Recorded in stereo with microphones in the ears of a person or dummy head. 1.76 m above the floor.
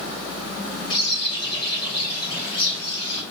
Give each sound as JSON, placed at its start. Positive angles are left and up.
{"t": 0.9, "sound": "a bird", "side_deg": 25, "distance_m": 5.0}